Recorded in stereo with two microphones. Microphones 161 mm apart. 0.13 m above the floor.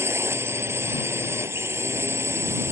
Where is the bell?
I don't hear a bell.